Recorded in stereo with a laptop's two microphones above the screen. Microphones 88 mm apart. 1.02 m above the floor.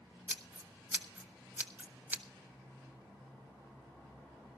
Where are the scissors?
20° right (ahead or behind), 1.1 m.